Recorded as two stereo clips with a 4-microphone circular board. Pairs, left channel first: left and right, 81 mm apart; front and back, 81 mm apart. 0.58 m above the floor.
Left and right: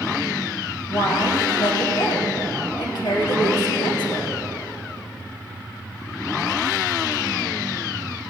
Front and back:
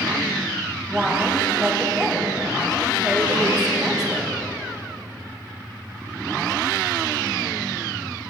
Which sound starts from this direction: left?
A woman speaking, at 0.9 s.